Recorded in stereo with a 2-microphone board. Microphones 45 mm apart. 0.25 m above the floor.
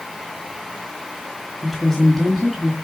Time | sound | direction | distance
1.6 | a woman speaking | 5° left (ahead or behind) | 1.7 m